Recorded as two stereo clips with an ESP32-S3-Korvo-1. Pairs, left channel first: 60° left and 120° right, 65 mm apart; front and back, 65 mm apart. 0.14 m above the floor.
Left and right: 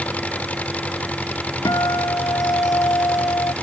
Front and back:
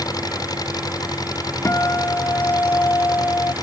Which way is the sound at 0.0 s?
10° right.